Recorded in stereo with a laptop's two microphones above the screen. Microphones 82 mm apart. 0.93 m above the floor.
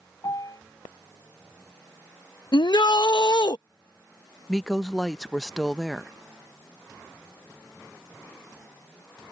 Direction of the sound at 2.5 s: 60° left (ahead or behind).